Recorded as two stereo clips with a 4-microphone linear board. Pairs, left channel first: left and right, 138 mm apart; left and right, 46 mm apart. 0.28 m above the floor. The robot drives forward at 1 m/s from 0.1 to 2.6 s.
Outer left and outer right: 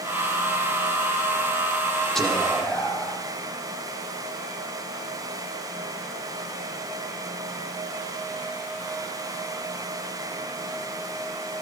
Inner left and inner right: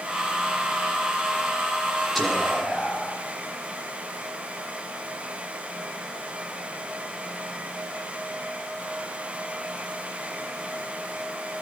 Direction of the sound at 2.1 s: Centre (ahead or behind).